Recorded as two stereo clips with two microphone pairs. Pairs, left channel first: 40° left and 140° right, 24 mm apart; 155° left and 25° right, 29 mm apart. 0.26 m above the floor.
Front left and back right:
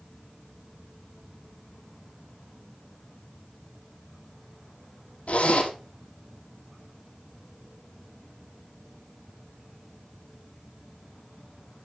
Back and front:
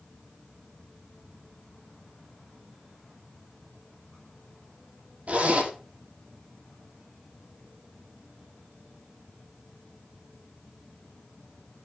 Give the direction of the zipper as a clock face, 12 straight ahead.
12 o'clock.